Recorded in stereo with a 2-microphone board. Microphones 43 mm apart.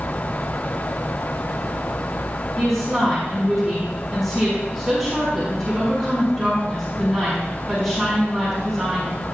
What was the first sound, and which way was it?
A woman speaking, centre (ahead or behind).